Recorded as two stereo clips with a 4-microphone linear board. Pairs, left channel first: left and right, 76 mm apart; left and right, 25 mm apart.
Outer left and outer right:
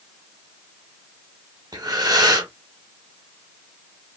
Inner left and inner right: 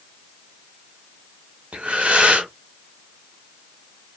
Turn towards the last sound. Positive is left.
turn(degrees=-60)  # may be behind; listen again after turning